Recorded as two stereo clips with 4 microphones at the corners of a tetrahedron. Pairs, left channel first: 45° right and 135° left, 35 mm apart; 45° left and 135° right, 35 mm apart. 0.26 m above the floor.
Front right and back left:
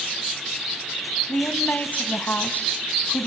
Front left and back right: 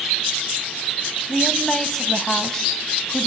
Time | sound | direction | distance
1.3 | a woman speaking | 30° right | 1.7 m